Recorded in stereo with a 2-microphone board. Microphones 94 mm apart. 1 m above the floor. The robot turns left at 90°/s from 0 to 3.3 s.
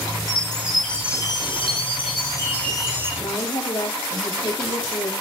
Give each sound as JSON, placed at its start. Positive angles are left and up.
{"t": 0.3, "sound": "a chime", "azimuth_deg": -140, "distance_m": 6.5}
{"t": 3.2, "sound": "a woman speaking", "side_deg": 60, "distance_m": 1.9}